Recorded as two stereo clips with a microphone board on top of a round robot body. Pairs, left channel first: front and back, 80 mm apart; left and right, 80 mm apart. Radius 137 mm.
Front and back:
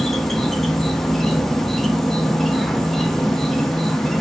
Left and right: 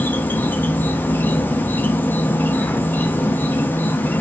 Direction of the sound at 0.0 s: 85° left.